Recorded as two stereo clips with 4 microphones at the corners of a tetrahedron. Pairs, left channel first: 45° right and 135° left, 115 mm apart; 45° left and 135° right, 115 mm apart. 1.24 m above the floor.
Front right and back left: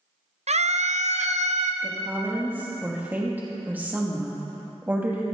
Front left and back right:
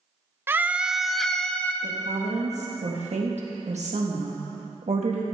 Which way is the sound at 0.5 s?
155° left.